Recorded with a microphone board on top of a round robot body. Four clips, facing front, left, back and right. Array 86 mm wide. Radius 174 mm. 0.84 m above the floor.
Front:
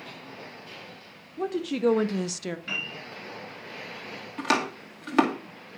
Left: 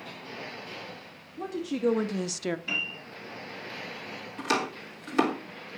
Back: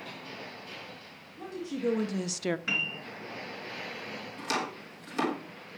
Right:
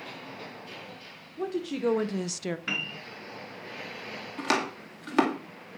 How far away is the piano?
About 2.5 m.